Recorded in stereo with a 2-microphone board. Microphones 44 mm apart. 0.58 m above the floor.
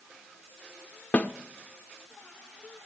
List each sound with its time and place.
1.1 s a snare drum: 35° left (ahead or behind), 0.7 m